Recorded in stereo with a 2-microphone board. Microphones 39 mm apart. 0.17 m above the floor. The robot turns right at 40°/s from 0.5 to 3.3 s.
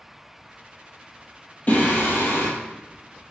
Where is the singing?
40° left, 1.1 m; by 2.5 s 70° left, 1.1 m.